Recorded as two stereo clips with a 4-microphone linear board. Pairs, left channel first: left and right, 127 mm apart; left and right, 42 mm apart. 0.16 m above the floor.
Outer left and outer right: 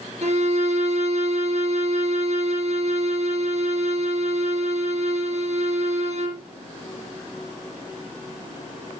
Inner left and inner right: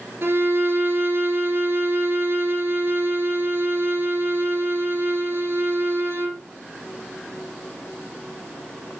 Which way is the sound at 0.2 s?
55° right (ahead or behind).